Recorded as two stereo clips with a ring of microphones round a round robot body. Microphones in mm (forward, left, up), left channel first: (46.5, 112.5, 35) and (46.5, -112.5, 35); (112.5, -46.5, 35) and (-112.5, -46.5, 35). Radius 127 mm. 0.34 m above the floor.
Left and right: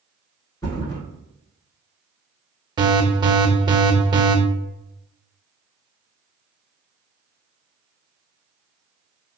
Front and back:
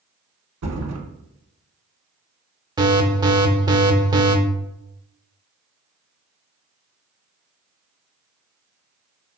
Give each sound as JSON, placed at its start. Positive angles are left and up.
{"t": 0.6, "sound": "a thud", "azimuth_deg": 165, "distance_m": 0.9}
{"t": 2.8, "sound": "an alarm", "azimuth_deg": -135, "distance_m": 0.5}